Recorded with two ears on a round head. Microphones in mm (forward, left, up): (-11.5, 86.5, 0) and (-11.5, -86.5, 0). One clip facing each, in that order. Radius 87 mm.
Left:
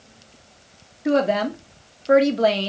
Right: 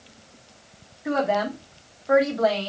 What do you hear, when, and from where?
1.1 s a woman speaking: 35° left (ahead or behind), 0.7 m